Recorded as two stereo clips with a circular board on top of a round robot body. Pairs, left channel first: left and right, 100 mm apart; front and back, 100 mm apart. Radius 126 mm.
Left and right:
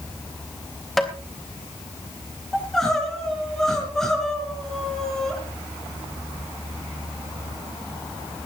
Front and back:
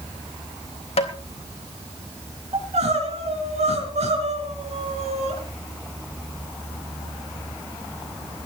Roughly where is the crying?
Behind.